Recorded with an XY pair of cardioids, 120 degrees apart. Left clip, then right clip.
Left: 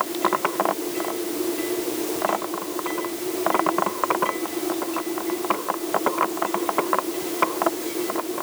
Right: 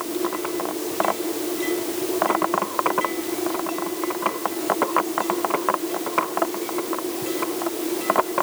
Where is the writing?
I don't hear writing.